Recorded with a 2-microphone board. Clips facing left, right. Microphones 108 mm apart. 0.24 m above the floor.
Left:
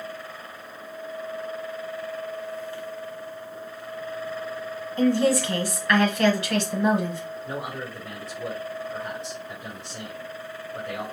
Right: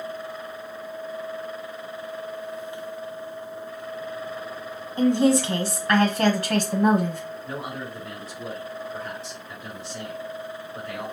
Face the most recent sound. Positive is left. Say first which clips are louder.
# left 1 dB
turn(degrees=30)  # may be behind; listen again after turning